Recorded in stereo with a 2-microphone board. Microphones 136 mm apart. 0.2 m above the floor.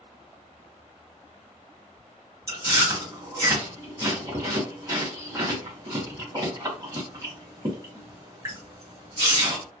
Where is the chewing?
25° right (ahead or behind), 1.7 m.